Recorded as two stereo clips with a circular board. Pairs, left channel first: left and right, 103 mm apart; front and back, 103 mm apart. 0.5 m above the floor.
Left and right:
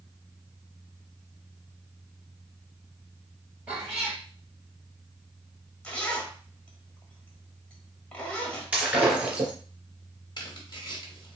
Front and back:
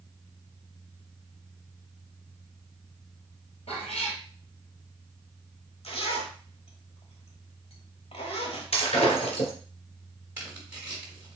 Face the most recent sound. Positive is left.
turn(degrees=115)